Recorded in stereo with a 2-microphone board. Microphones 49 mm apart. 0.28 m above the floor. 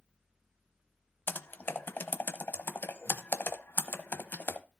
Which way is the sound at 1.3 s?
45° left (ahead or behind).